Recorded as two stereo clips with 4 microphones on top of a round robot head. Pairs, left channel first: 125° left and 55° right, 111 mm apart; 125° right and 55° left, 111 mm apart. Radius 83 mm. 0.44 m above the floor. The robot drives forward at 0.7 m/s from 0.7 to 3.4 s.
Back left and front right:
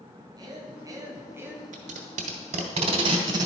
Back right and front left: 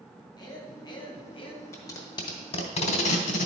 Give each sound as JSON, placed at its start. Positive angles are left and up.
{"t": 0.4, "sound": "a man speaking", "azimuth_deg": -95, "distance_m": 1.5}
{"t": 1.7, "sound": "tape being pulled", "azimuth_deg": -60, "distance_m": 1.3}